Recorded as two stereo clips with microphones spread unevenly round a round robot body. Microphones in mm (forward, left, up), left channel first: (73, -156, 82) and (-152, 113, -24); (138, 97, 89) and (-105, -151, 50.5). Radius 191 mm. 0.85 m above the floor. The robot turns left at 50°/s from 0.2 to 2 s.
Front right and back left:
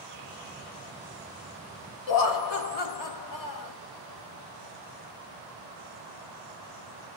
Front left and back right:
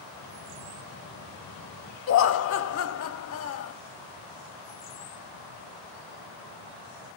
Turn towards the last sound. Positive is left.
turn(degrees=-10)